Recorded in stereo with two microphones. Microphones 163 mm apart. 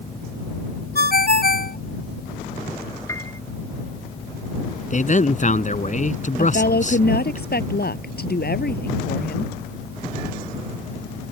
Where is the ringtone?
70° left (ahead or behind).